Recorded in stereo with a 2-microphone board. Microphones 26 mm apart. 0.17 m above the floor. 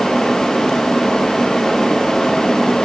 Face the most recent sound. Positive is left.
No sound to turn to.